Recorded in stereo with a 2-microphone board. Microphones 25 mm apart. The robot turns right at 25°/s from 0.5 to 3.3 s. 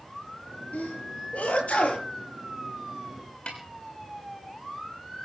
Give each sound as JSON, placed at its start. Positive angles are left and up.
{"t": 0.7, "sound": "a sneeze", "side_deg": 75, "distance_m": 6.0}
{"t": 3.5, "sound": "a snare drum", "side_deg": 50, "distance_m": 3.5}